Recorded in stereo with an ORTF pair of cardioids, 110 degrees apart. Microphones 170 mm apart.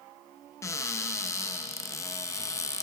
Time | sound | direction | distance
0.6 | a cupboard door | 20° left | 0.6 m